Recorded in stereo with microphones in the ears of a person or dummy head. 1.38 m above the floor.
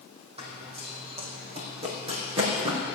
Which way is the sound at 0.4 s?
35° right (ahead or behind).